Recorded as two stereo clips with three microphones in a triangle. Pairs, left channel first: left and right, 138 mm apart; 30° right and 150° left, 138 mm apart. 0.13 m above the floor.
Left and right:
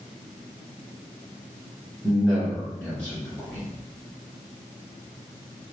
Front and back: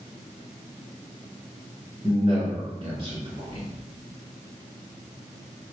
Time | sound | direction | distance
2.0 | a man speaking | 170° left | 1.7 m